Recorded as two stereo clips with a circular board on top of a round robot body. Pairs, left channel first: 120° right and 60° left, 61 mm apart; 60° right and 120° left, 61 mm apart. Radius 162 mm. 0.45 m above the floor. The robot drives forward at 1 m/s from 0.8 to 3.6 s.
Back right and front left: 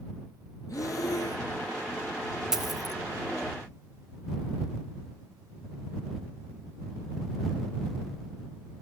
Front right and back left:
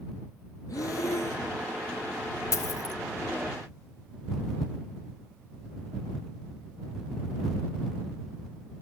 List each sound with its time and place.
0.7 s breathing: 90° right, 2.5 m; by 1.5 s 105° right, 2.5 m
2.5 s a dropped coin: 25° right, 1.1 m; by 3.0 s 40° right, 0.7 m